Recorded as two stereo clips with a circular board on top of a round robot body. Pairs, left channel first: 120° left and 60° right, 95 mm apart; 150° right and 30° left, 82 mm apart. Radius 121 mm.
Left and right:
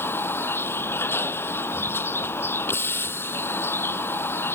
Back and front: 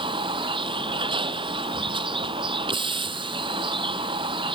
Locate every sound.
0.0 s a vehicle: 50° left